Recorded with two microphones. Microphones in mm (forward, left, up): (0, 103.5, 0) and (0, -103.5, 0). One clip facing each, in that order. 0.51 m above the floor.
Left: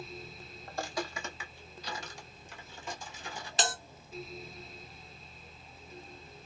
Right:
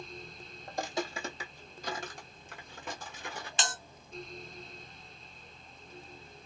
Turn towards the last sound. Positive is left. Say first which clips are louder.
# left 5 dB
turn(degrees=40)  # may be behind; listen again after turning